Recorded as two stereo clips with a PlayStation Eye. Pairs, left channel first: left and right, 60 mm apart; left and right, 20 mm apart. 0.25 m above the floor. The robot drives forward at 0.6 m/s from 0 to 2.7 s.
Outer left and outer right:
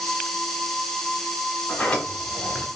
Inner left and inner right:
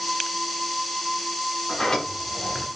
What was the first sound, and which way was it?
A sliding door, 20° left (ahead or behind).